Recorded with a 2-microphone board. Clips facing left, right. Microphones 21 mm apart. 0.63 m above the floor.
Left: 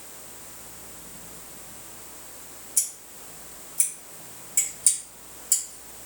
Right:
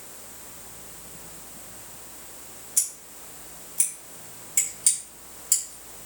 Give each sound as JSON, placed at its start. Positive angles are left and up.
{"t": 2.8, "sound": "scissors", "side_deg": -30, "distance_m": 2.0}